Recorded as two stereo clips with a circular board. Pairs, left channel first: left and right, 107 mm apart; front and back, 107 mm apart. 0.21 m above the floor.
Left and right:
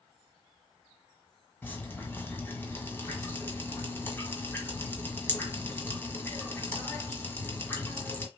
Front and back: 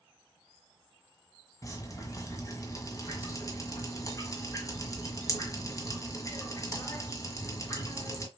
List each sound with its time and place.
1.6 s dripping: 35° left, 1.7 m